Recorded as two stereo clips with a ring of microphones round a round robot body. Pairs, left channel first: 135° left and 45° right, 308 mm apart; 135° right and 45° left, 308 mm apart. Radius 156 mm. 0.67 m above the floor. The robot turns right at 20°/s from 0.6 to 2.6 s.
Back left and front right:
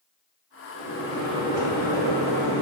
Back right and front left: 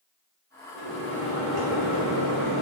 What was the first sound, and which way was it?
A microwave, 25° right.